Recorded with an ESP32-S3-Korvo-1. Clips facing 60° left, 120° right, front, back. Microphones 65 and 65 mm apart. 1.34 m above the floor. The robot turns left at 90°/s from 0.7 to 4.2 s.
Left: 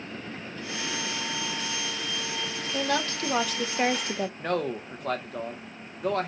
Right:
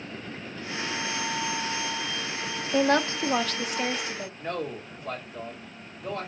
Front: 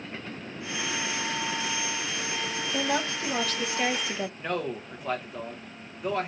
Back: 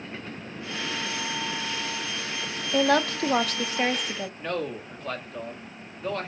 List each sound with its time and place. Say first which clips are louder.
2.7 s a woman speaking: right 6 dB, back 7 dB; 150° right, 0.9 m; by 4.3 s 75° left, 0.9 m
4.4 s a man speaking: left 2 dB, even; 80° left, 1.6 m